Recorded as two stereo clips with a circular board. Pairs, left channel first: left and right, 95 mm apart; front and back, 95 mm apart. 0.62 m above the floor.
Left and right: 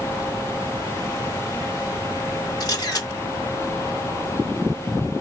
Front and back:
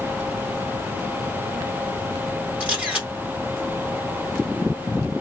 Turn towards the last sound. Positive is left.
turn(degrees=110)